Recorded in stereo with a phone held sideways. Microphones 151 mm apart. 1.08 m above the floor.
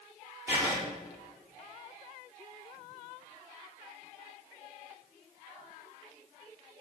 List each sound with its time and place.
0.5 s writing: 15° right (ahead or behind), 7.5 m